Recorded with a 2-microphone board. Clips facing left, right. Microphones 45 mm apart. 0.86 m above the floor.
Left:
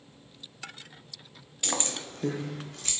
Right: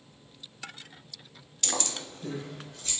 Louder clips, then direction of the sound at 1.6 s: Left 1 dB; 15° left (ahead or behind).